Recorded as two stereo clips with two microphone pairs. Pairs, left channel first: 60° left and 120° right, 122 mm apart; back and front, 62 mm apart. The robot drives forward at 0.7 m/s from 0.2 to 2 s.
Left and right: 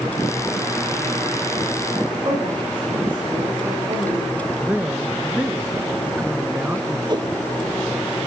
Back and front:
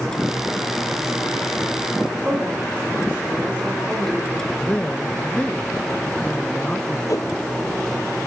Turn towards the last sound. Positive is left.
turn(degrees=-165)